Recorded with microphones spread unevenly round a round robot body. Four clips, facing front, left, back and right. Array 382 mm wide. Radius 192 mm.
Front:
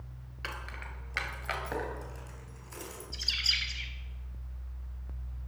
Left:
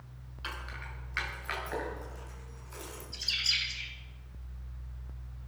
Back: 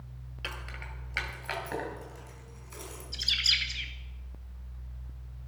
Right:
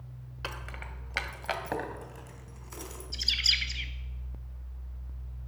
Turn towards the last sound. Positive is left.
turn(degrees=-110)